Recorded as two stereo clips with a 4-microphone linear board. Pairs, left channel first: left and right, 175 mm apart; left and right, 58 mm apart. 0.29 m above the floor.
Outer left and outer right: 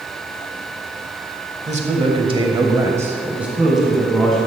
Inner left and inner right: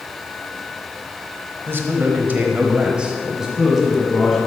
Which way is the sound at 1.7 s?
40° right (ahead or behind).